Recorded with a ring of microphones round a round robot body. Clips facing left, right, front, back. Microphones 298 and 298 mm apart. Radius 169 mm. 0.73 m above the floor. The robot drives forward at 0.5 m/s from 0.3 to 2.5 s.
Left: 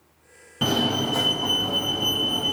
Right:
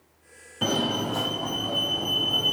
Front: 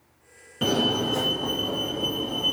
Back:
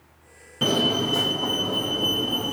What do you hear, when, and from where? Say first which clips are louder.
0.6 s a fire alarm: left 2 dB, back 1 dB; 95° left, 2.5 m; by 2.5 s 125° left, 2.5 m